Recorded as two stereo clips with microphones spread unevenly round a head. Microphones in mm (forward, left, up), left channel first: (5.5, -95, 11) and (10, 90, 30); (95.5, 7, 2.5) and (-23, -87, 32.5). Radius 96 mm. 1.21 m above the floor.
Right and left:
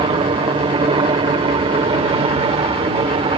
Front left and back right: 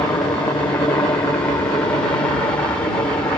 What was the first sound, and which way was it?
A helicopter, 75° left.